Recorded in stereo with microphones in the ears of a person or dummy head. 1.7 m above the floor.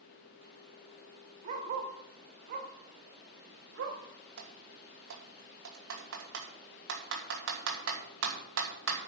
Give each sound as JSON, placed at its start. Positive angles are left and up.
{"t": 1.4, "sound": "a dog barking", "side_deg": -40, "distance_m": 2.5}
{"t": 4.4, "sound": "typing on a keyboard", "side_deg": -85, "distance_m": 2.5}